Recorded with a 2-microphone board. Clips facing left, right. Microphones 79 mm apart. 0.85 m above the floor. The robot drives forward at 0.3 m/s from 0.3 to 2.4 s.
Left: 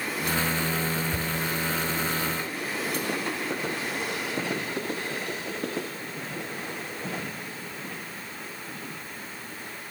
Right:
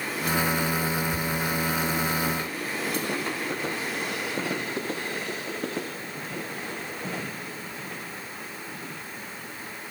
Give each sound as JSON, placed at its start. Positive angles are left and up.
{"t": 1.1, "sound": "a cupboard door", "side_deg": 85, "distance_m": 3.5}